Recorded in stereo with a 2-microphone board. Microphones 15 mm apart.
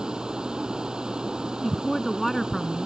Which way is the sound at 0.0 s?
65° right (ahead or behind).